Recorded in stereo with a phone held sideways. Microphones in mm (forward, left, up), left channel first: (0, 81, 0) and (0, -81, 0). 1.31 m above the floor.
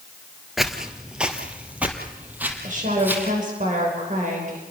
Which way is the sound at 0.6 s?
Centre (ahead or behind).